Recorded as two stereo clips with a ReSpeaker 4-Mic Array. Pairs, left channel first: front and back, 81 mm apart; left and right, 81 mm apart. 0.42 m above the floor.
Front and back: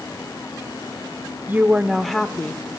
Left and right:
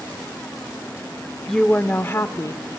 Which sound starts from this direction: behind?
A woman speaking, at 1.5 s.